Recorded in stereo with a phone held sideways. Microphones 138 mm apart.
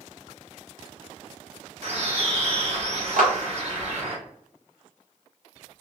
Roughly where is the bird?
Right.